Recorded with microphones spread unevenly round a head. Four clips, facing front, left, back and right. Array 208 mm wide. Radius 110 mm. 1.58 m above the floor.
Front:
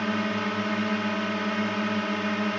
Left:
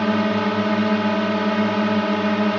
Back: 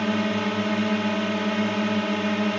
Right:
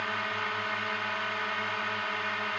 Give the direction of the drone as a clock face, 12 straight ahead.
9 o'clock.